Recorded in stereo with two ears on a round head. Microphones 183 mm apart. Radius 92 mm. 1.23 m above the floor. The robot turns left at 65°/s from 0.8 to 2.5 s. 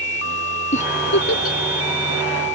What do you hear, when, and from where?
0.7 s a giggle: 35° left (ahead or behind); by 1.6 s 80° left